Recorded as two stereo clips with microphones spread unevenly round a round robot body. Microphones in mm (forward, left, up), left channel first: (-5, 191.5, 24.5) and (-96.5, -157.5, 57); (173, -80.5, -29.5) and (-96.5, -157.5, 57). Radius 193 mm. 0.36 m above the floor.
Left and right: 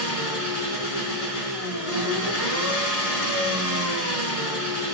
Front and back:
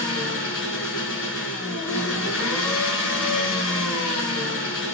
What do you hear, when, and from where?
0.0 s an engine running: 35° left, 1.7 m